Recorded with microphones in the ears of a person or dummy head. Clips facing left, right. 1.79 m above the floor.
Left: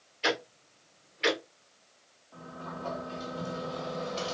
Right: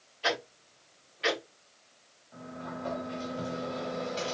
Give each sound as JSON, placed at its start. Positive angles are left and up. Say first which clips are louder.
{"t": 0.2, "sound": "ticking", "louder": "left 1 dB", "side_deg": 25, "distance_m": 0.9}
{"t": 2.3, "sound": "a sliding door", "louder": "right 2 dB", "side_deg": -15, "distance_m": 2.0}